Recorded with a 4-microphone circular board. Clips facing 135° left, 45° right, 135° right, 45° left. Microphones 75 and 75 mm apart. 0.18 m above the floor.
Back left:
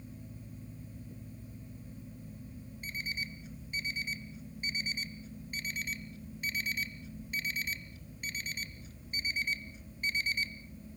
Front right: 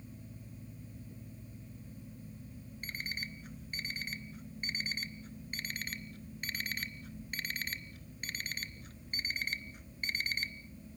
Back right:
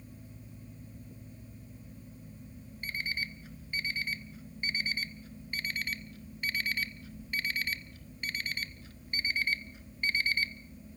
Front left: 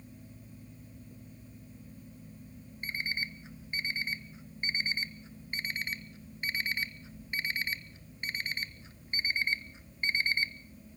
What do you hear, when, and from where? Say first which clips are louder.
2.8 s an alarm clock: back left 2 dB, even; 20° right, 0.9 m